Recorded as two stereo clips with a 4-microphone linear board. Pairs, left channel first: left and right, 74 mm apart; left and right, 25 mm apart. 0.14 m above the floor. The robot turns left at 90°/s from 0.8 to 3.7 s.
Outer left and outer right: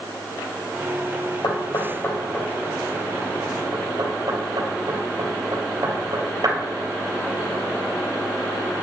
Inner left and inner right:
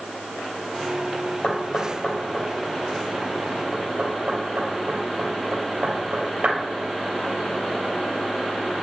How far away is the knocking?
About 3 m.